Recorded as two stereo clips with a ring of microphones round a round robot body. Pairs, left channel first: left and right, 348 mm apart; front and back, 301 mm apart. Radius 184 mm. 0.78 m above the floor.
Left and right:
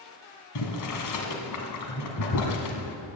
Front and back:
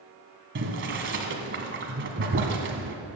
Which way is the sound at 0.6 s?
130° left.